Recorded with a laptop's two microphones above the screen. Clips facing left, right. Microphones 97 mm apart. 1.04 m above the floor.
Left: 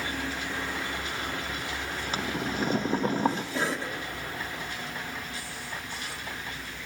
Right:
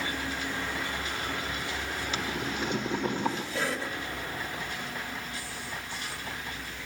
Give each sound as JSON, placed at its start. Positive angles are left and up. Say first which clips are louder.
{"t": 2.1, "sound": "boiling", "louder": "left 4 dB", "side_deg": 35, "distance_m": 0.9}
{"t": 3.5, "sound": "a cough", "louder": "left 2 dB", "side_deg": 35, "distance_m": 1.1}